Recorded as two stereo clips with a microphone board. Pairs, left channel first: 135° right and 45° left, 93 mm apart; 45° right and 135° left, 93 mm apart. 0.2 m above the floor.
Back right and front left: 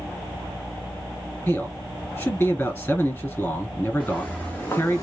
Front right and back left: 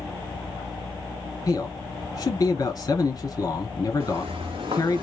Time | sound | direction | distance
1.5 | a man speaking | 80° right | 2.5 m
4.0 | footsteps | 135° left | 1.4 m